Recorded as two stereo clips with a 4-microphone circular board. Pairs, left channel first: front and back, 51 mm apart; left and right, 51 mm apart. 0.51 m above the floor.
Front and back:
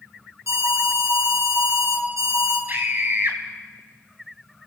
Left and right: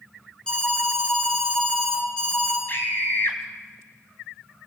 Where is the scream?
135° left, 4 m.